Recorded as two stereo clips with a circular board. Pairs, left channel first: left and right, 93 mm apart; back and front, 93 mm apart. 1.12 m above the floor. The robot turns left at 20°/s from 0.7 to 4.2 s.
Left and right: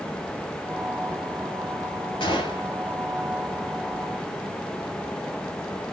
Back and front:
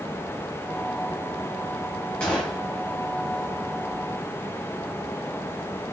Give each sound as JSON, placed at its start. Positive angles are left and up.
{"t": 2.2, "sound": "a gunshot", "azimuth_deg": 100, "distance_m": 1.7}